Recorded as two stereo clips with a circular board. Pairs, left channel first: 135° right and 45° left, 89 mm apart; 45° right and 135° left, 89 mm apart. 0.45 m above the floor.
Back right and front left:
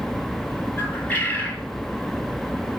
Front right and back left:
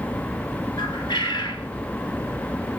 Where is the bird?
65° right, 1.8 m.